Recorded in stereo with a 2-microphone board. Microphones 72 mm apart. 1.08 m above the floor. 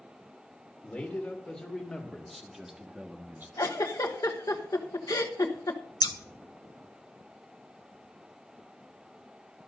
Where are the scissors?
65° left (ahead or behind), 0.8 m.